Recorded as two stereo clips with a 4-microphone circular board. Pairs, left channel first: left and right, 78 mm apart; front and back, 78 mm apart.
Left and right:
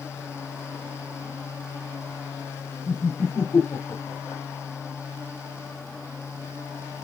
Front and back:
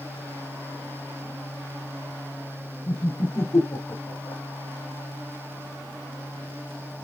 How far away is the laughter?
About 5 m.